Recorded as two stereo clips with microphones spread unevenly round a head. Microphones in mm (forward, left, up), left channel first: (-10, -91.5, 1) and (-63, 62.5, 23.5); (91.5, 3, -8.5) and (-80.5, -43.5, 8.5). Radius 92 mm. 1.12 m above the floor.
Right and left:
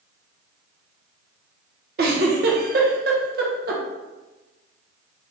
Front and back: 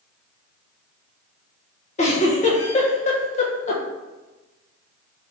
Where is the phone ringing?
No phone ringing in this recording.